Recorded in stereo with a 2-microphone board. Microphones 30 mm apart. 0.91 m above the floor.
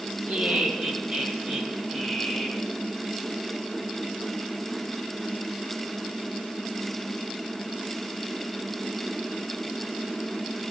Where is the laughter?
50° right (ahead or behind), 1.5 m; by 2.6 s 25° right (ahead or behind), 2.5 m.